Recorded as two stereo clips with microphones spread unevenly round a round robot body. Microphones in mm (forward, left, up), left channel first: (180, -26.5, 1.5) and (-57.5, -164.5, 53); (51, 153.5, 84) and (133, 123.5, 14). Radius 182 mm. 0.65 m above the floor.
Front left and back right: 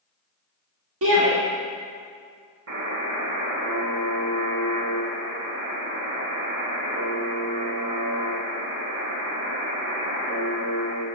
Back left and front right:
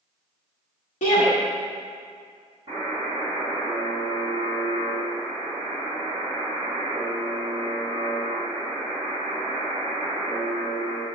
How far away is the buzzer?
About 1.6 m.